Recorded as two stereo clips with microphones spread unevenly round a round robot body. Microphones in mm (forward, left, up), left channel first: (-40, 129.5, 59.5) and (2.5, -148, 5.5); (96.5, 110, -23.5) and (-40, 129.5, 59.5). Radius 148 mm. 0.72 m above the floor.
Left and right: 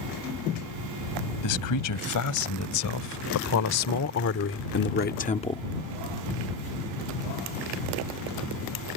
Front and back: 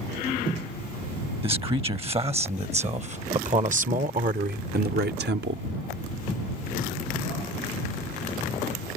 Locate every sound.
1.4 s a man speaking: 120° left; by 5.6 s straight behind